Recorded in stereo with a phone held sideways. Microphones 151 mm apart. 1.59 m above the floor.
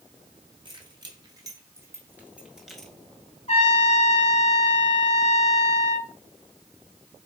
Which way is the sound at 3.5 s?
45° left (ahead or behind).